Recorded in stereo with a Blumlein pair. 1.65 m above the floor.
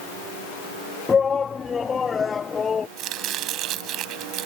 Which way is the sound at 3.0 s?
35° right.